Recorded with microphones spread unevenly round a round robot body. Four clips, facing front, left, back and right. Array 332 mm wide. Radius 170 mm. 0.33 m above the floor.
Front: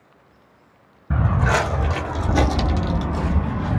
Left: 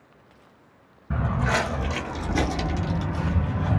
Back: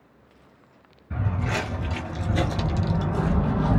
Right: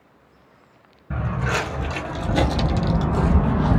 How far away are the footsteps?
About 1.2 m.